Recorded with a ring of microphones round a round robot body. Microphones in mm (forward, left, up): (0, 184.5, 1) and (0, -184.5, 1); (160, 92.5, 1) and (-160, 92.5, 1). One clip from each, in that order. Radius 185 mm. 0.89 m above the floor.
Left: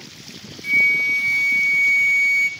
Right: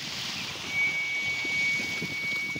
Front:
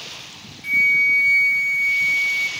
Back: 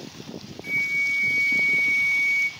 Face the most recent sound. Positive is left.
turn(degrees=75)